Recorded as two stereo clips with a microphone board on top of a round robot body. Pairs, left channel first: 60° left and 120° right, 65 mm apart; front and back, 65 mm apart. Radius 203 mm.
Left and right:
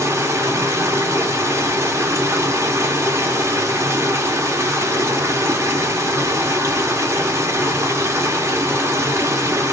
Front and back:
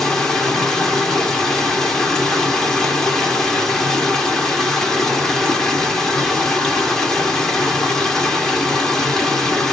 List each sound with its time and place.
0.0 s running water: 80° right, 1.4 m